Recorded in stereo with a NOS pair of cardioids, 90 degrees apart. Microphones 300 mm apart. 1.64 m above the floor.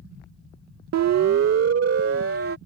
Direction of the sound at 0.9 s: 65° right.